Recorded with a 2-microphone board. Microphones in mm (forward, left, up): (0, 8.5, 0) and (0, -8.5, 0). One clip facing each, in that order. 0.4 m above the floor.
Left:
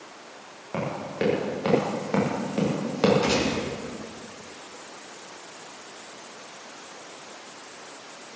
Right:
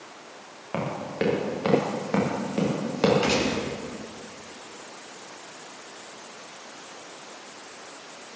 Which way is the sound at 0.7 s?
10° right (ahead or behind).